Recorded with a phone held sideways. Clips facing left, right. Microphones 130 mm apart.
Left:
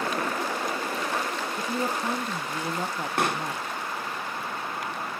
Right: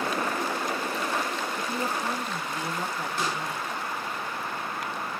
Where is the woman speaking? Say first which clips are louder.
Left 3 dB; 25° left (ahead or behind), 1.1 m.